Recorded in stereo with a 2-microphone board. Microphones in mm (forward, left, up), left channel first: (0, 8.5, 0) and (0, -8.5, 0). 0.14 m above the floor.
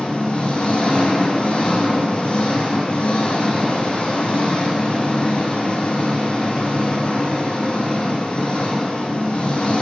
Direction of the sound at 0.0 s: 75° left (ahead or behind).